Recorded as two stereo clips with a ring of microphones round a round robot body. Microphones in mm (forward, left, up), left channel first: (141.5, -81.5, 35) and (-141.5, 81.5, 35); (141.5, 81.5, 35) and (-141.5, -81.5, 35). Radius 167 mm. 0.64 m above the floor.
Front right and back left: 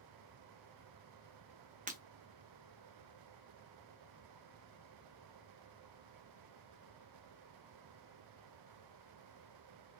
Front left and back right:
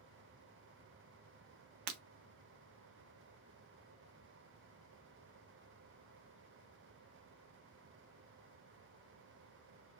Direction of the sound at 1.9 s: 145° right.